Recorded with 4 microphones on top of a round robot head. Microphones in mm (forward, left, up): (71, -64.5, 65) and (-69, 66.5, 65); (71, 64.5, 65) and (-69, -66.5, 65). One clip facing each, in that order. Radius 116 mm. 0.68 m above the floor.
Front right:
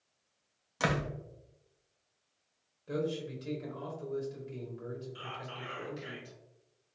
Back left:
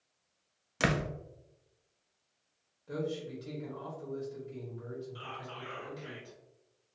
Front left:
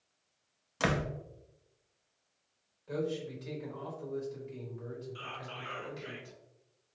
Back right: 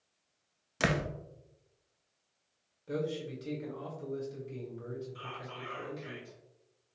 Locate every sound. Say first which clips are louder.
0.8 s a door slam: back left 1 dB, even; 175° left, 0.5 m
2.9 s a man speaking: front right 2 dB, even; 95° right, 1.2 m
5.2 s whispering: even, back right 1 dB; 10° left, 1.3 m